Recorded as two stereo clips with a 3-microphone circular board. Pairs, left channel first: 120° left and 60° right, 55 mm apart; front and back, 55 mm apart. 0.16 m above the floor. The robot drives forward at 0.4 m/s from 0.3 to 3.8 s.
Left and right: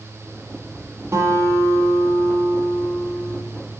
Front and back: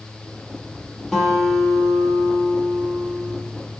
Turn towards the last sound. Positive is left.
turn(degrees=-105)